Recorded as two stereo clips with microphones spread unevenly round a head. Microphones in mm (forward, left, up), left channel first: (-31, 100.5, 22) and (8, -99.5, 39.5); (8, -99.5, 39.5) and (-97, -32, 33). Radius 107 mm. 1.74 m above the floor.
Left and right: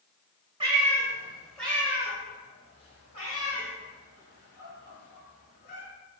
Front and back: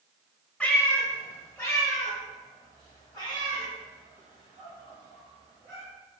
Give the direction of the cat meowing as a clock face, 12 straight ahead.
3 o'clock.